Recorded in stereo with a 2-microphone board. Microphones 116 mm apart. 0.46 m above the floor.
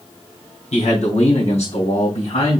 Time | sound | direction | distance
0.7 | a man speaking | 75° left (ahead or behind) | 4.5 m